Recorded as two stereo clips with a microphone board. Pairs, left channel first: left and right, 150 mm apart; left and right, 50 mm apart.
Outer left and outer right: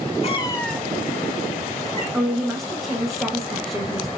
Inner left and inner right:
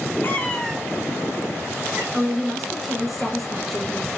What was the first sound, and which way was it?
A cat meowing, 45° left (ahead or behind).